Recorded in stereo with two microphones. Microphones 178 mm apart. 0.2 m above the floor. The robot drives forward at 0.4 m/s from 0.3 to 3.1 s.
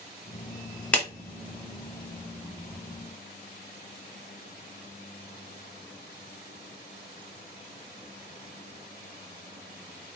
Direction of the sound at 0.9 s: 5° left (ahead or behind).